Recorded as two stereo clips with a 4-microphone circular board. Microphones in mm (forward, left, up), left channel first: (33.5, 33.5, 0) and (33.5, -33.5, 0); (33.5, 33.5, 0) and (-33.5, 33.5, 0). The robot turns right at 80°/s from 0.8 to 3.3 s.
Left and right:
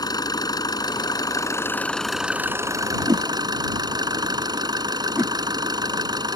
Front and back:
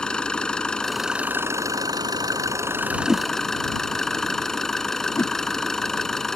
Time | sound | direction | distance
0.0 | an engine running | 75° left | ?
3.1 | a whoosh | 100° right | ?
5.2 | a whoosh | 35° right | ?